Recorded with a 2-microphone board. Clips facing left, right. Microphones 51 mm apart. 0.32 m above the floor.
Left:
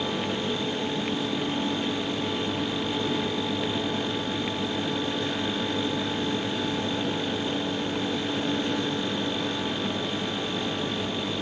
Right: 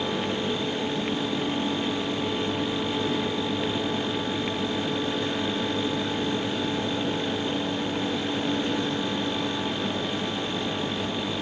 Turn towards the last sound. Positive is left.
No sound to turn to.